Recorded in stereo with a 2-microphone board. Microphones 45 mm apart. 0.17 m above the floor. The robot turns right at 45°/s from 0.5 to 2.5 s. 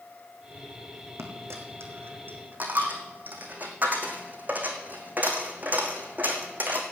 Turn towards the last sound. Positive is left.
turn(degrees=-40)  # may be behind; listen again after turning